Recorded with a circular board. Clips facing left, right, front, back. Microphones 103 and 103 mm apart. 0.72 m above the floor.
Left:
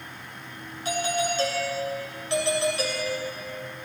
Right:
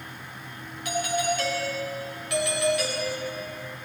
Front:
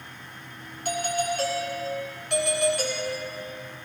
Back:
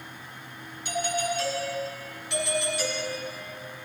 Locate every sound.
0.8 s a doorbell: 30° left, 4 m